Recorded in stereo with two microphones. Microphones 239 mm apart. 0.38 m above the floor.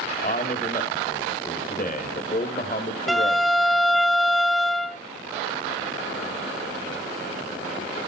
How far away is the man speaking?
About 1.3 m.